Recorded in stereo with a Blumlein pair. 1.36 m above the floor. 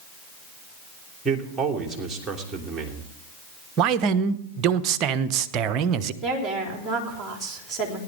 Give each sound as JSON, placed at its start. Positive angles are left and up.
{"t": 1.2, "sound": "a man speaking", "azimuth_deg": -15, "distance_m": 3.0}
{"t": 3.8, "sound": "a man speaking", "azimuth_deg": -35, "distance_m": 1.0}
{"t": 6.2, "sound": "a woman speaking", "azimuth_deg": -10, "distance_m": 4.0}